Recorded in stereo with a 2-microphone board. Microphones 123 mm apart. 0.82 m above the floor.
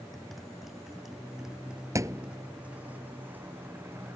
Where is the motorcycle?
Centre (ahead or behind); by 4.2 s 20° right (ahead or behind).